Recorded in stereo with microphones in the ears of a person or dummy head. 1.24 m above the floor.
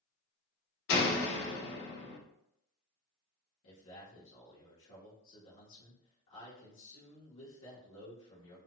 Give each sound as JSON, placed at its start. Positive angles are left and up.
{"t": 0.9, "sound": "a door slam", "side_deg": 60, "distance_m": 1.1}
{"t": 3.6, "sound": "a man speaking", "side_deg": 70, "distance_m": 1.2}